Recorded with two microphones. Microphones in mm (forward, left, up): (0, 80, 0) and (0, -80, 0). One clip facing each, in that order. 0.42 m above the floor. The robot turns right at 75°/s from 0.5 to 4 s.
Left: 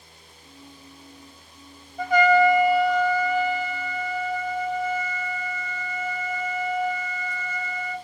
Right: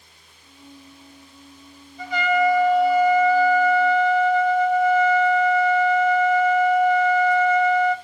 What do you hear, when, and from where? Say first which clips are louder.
2.0 s a trumpet: left 3 dB; 115° left, 0.6 m; by 8.0 s 95° right, 0.6 m